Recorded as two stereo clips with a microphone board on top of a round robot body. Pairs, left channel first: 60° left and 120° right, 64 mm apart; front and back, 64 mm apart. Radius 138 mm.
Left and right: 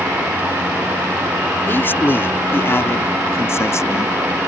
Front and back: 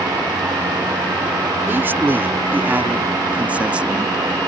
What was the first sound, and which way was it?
A man speaking, 120° left.